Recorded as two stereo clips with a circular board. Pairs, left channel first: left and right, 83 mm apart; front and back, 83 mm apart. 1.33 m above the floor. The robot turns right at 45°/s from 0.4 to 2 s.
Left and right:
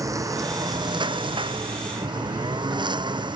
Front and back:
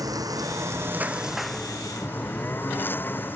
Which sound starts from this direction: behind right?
A lawn mower, at 0.0 s.